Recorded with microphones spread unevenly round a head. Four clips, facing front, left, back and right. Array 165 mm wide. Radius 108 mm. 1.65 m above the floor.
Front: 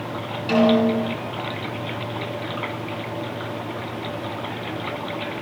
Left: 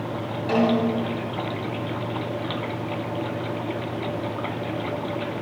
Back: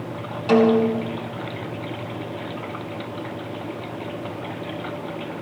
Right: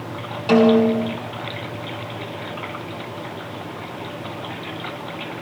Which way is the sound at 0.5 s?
115° right.